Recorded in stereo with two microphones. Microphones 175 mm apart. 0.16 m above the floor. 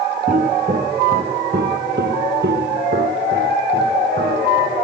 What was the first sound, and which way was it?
Footsteps, 50° right (ahead or behind).